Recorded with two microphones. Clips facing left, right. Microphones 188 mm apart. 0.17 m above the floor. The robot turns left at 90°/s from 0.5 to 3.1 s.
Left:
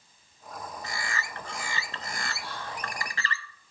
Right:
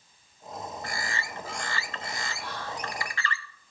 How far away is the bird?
About 0.5 m.